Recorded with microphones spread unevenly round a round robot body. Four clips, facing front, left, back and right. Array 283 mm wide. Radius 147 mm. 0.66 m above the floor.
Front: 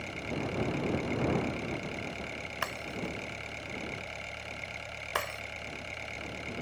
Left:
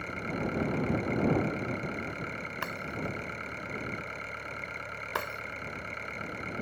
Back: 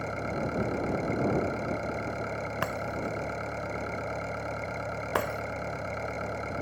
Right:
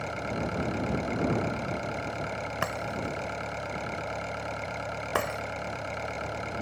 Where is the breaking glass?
140° right.